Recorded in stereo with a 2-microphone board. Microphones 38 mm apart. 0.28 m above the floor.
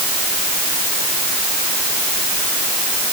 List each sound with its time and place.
Only background noise.